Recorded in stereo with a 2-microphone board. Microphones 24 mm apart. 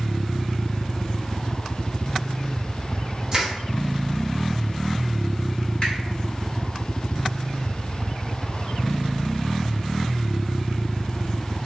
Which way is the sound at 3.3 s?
25° right (ahead or behind).